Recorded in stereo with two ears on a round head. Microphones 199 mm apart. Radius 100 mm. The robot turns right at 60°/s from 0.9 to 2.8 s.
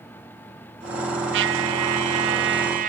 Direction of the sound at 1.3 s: 125° right.